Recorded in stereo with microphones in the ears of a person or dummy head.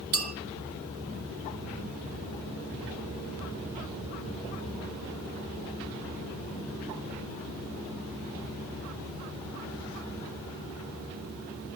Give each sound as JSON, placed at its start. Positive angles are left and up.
{"t": 0.1, "sound": "a clink", "side_deg": -45, "distance_m": 2.0}